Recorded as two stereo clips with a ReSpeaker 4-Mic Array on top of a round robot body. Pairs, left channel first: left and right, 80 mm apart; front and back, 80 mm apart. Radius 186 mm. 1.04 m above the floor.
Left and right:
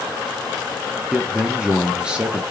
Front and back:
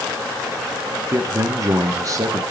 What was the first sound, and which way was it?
A man speaking, 165° right.